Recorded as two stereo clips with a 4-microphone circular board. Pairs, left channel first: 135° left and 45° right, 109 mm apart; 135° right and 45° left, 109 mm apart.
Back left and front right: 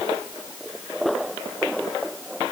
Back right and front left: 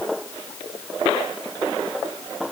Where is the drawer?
No drawer in this recording.